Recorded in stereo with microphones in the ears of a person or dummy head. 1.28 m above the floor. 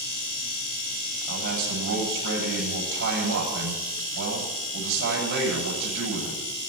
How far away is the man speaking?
About 9 m.